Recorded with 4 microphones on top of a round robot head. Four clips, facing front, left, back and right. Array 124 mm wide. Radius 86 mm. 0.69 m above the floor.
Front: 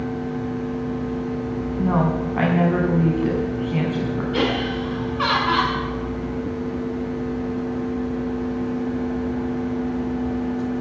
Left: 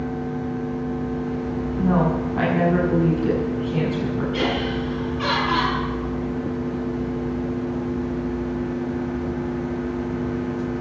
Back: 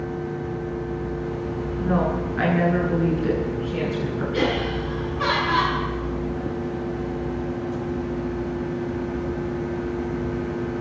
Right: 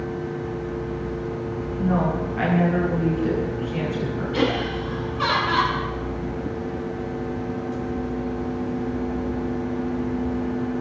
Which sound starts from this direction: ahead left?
A woman speaking, at 1.8 s.